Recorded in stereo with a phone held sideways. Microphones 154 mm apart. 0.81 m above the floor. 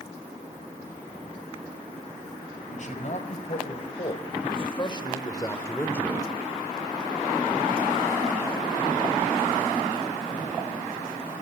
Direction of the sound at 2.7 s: 55° left (ahead or behind).